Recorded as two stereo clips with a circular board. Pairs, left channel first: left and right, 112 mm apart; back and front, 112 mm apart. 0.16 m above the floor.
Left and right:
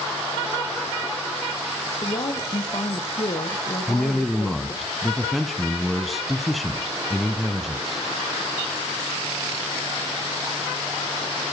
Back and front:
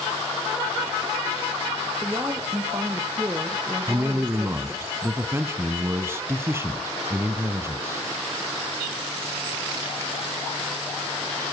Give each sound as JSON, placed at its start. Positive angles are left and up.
{"t": 2.0, "sound": "a woman speaking", "azimuth_deg": 70, "distance_m": 1.8}
{"t": 3.9, "sound": "a man speaking", "azimuth_deg": 0, "distance_m": 1.2}